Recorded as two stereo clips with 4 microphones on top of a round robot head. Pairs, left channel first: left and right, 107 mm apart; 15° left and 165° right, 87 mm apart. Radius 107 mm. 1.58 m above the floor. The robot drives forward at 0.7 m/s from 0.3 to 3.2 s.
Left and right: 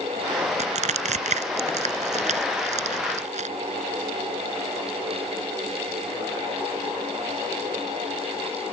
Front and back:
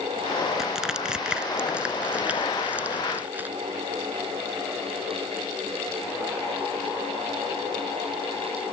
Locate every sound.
0.6 s crushing: 80° right; by 3.5 s 90° right